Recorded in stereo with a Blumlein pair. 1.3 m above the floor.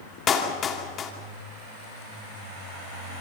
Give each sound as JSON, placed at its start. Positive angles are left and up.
{"t": 0.3, "sound": "a clap", "azimuth_deg": 25, "distance_m": 3.0}